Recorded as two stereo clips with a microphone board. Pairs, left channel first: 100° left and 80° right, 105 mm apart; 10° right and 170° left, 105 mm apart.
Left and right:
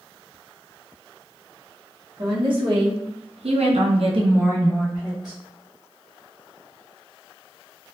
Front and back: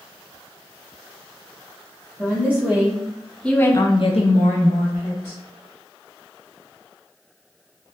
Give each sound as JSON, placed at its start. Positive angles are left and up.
{"t": 2.2, "sound": "a woman speaking", "azimuth_deg": -120, "distance_m": 1.6}